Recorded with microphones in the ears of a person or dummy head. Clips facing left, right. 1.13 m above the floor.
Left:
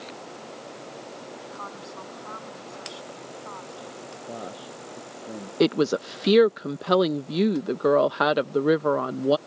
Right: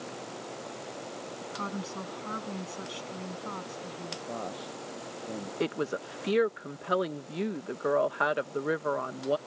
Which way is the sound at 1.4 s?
30° right (ahead or behind).